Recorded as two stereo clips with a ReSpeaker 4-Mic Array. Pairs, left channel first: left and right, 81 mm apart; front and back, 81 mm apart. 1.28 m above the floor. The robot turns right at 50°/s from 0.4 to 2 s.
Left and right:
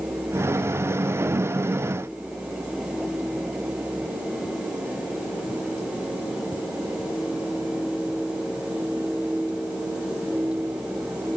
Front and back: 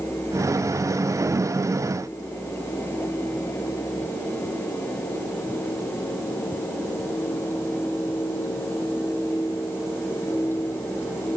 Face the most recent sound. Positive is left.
No sound to turn to.